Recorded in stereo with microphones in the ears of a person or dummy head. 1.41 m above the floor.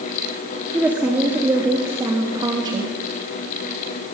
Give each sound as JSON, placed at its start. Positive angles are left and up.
{"t": 0.7, "sound": "a woman speaking", "side_deg": -5, "distance_m": 3.5}